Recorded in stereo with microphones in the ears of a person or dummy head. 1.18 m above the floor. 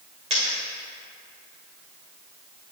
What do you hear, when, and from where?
0.3 s a dropped coin: 40° right (ahead or behind), 1.4 m